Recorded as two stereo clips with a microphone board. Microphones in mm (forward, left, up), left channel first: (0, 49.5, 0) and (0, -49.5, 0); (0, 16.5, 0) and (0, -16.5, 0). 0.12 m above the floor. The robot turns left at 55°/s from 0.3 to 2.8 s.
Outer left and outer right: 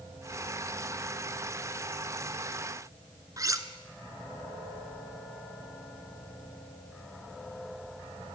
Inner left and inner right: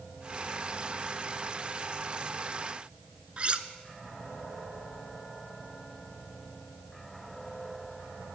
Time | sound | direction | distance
3.4 | cutlery clinking | 35° right (ahead or behind) | 0.8 m